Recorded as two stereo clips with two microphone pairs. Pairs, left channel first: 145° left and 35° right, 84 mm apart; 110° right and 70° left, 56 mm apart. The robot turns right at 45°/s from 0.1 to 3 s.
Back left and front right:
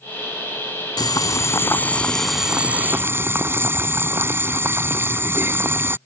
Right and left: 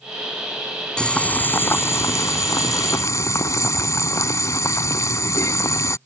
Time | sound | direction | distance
1.0 | boiling | 175° left | ?